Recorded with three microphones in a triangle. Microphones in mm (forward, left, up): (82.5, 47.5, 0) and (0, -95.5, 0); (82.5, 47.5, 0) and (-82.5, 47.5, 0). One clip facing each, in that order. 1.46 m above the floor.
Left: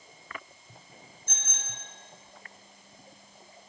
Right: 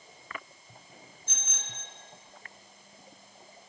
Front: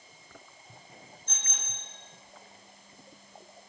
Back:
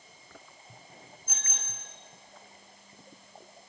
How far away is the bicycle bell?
About 8 m.